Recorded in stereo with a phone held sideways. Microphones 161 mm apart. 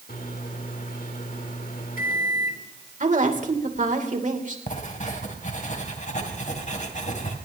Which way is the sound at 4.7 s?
50° left (ahead or behind).